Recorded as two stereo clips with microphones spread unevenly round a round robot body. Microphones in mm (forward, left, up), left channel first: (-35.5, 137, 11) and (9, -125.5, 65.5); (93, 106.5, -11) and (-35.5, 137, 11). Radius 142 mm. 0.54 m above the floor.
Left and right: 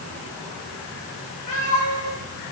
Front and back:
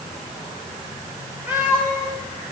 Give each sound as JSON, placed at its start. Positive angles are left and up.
{"t": 1.5, "sound": "a cat meowing", "azimuth_deg": 90, "distance_m": 8.0}